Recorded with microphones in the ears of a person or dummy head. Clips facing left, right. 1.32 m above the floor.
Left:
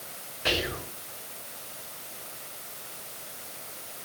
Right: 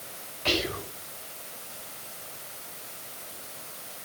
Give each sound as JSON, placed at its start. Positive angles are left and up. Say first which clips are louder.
{"t": 0.5, "sound": "whispering", "louder": "right 1 dB", "side_deg": 15, "distance_m": 7.0}